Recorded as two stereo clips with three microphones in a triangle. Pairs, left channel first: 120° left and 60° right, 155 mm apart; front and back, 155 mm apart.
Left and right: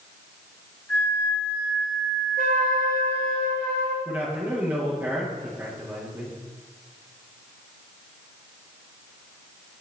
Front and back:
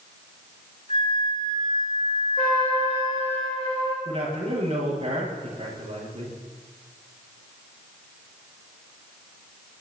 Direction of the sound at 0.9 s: 45° left.